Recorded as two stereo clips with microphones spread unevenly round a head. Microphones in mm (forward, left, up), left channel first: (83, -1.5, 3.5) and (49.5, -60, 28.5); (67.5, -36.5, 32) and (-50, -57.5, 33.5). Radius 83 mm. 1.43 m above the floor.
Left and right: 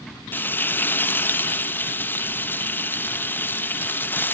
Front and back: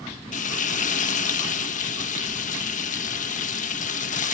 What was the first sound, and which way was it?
Frying, 5° right.